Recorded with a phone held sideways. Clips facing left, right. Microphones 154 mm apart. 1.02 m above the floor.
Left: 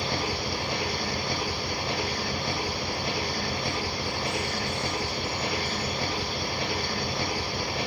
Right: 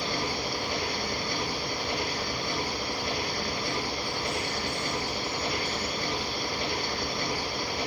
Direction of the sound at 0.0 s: 85° left.